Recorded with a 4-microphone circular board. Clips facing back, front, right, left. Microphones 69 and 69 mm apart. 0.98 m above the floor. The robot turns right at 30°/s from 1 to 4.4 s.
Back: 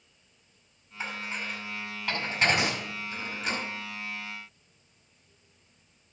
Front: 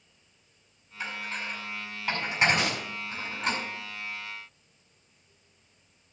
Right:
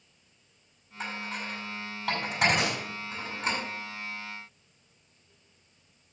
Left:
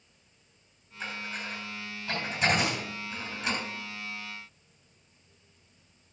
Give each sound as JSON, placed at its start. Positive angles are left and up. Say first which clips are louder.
{"t": 1.0, "sound": "dishes clattering", "louder": "even, right 1 dB", "azimuth_deg": -115, "distance_m": 6.0}
{"t": 2.6, "sound": "a gunshot", "louder": "even, even", "azimuth_deg": -115, "distance_m": 5.0}